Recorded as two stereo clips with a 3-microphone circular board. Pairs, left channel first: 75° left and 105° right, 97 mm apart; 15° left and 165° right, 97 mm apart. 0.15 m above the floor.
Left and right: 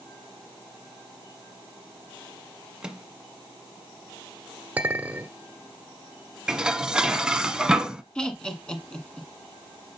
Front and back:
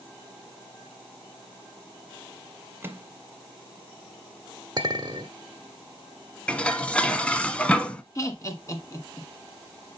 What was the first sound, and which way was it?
A microwave, 170° right.